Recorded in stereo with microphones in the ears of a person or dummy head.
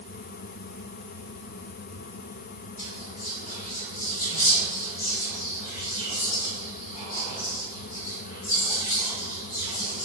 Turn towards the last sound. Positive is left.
turn(degrees=-25)  # may be behind; listen again after turning